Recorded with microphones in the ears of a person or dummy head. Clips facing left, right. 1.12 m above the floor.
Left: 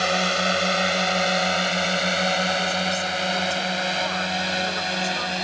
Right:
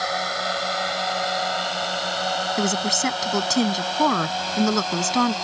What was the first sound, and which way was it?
A drone, 40° left (ahead or behind).